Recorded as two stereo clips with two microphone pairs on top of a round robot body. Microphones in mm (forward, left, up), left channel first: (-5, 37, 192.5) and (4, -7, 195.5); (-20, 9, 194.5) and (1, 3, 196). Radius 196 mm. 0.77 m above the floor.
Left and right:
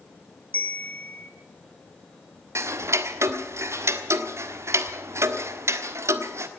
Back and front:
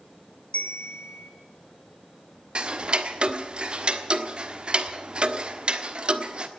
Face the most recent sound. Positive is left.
turn(degrees=-65)